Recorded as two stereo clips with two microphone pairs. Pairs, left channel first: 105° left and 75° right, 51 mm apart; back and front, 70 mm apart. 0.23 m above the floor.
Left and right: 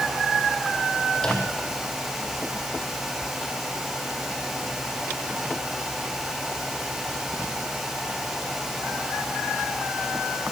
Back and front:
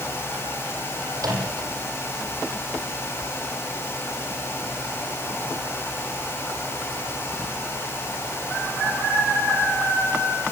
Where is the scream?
No scream in this recording.